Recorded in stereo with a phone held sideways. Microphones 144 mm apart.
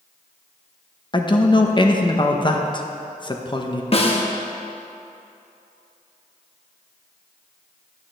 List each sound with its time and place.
1.1 s a man speaking: 35° left (ahead or behind), 0.8 m
3.9 s a snare drum: 45° left (ahead or behind), 1.0 m